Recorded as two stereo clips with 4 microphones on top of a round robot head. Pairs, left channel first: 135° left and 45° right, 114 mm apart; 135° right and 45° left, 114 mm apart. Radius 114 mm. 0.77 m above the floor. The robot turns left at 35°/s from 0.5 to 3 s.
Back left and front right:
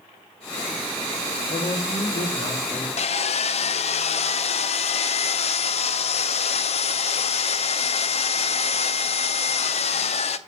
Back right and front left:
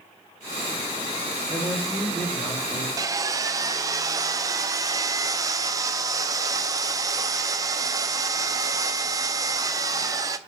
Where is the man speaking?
135° left, 2 m; by 2.9 s 85° left, 2 m.